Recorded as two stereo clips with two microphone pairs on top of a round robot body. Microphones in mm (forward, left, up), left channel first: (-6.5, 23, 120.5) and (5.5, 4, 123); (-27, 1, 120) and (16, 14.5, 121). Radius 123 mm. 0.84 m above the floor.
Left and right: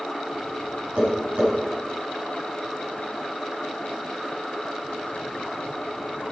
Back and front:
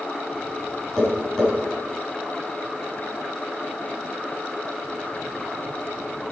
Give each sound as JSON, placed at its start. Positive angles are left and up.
{"t": 1.0, "sound": "tapping", "azimuth_deg": -90, "distance_m": 5.5}